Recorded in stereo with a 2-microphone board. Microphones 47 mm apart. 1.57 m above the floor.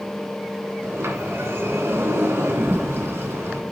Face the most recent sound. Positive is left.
turn(degrees=-70)  # may be behind; listen again after turning